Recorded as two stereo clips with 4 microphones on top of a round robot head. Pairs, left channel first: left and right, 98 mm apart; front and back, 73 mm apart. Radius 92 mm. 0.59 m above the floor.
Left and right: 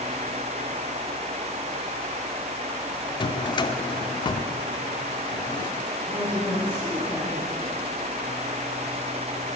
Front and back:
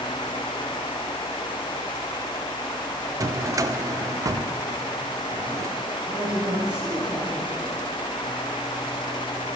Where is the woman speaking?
155° left, 4.5 m.